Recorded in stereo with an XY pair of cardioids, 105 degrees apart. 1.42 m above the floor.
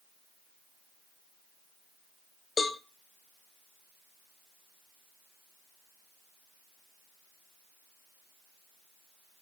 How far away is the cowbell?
About 0.6 m.